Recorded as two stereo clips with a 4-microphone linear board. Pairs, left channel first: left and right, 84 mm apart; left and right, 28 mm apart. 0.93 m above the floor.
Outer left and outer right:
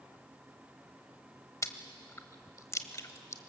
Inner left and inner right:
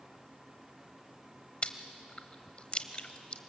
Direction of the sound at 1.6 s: 35° left (ahead or behind).